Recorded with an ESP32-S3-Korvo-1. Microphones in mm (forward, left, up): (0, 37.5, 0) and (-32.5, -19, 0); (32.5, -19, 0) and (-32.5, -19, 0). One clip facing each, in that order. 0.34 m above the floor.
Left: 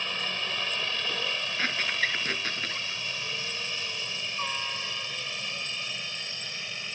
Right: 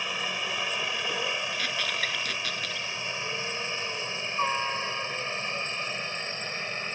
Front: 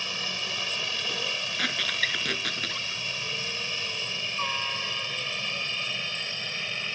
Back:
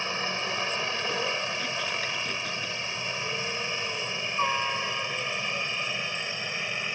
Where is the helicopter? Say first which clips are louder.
Right 1 dB, back 4 dB; 170° left; by 7.0 s 120° right.